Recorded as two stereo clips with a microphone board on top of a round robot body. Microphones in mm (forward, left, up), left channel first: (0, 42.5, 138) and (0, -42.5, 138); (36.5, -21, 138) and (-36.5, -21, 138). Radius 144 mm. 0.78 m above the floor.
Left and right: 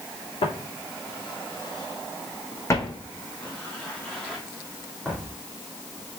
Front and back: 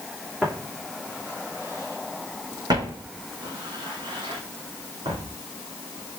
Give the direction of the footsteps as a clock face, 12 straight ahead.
9 o'clock.